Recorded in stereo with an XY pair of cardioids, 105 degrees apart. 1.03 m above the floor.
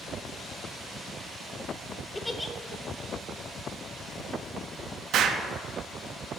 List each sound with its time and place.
2.1 s a giggle: 10° left, 0.6 m
5.1 s an explosion: 70° right, 0.7 m